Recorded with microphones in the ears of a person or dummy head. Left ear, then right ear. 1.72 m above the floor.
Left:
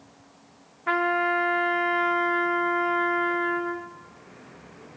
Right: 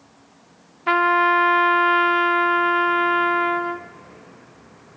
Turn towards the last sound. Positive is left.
turn(degrees=-20)  # may be behind; listen again after turning